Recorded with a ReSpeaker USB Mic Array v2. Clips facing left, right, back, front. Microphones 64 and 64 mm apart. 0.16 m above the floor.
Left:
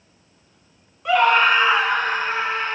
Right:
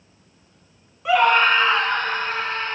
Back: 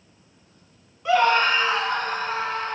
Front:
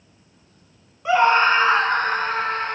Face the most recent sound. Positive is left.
turn(degrees=20)